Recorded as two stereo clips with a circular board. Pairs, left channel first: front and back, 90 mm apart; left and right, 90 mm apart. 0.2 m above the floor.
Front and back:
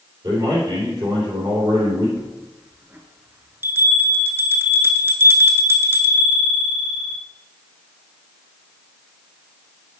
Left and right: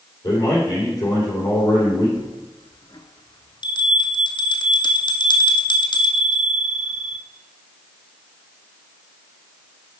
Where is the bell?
115° left, 0.9 m.